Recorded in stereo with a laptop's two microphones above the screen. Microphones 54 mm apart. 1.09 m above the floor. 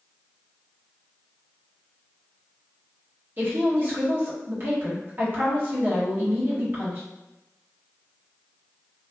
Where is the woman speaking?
40° right (ahead or behind), 1.1 m.